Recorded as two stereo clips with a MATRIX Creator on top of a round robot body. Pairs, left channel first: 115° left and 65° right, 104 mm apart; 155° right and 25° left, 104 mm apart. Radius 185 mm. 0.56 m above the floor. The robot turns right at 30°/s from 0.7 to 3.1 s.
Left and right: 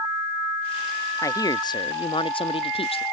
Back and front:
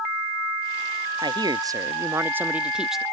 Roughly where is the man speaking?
Ahead left.